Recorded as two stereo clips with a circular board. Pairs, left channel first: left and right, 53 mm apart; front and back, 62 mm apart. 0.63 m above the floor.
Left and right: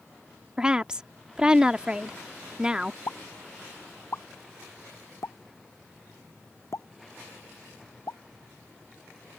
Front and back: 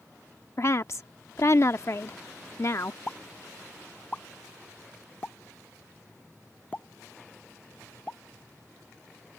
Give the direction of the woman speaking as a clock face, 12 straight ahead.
1 o'clock.